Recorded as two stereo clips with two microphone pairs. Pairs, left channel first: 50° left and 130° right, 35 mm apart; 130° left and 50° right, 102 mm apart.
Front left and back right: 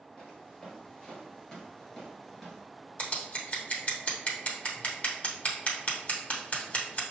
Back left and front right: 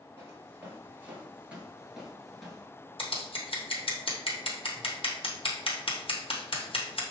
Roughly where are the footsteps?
Ahead.